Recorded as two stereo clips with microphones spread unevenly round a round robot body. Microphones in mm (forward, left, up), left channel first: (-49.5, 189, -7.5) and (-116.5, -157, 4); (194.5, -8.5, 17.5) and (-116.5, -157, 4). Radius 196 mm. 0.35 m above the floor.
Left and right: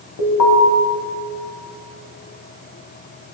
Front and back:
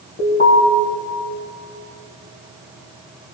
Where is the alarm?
95° left, 3.5 m.